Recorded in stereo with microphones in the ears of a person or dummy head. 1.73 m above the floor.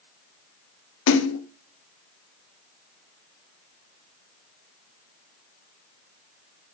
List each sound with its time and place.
1.1 s a splash: 80° left, 0.8 m